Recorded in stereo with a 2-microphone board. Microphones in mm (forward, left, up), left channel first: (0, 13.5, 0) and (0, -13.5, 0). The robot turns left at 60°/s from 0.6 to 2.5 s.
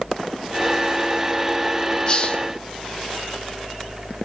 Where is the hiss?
30° left (ahead or behind), 1.3 m; by 2.4 s 45° left (ahead or behind), 1.3 m.